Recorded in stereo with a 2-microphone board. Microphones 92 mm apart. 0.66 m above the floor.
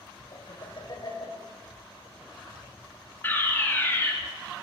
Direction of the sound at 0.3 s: 50° left (ahead or behind).